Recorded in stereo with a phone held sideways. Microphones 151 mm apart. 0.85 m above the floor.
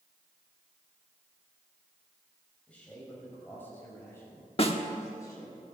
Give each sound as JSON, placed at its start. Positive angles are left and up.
{"t": 2.7, "sound": "a man speaking", "side_deg": 10, "distance_m": 5.5}
{"t": 4.6, "sound": "a snare drum", "side_deg": 40, "distance_m": 1.3}